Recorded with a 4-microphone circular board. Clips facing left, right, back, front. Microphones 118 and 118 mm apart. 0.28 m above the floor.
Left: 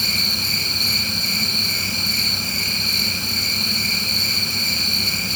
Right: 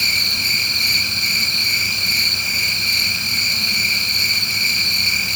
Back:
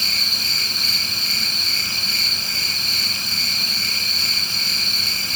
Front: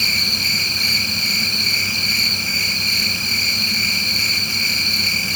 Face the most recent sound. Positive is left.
turn(degrees=-110)